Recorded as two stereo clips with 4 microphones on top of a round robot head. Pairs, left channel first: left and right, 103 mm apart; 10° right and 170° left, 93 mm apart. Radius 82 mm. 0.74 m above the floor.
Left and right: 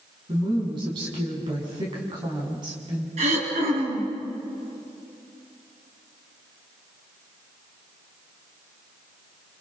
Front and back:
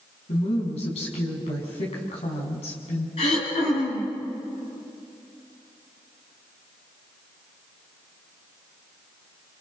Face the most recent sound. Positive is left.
turn(degrees=-55)